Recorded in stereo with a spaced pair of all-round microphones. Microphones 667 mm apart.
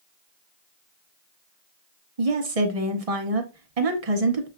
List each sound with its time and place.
2.2 s a woman speaking: 60° right (ahead or behind), 0.9 m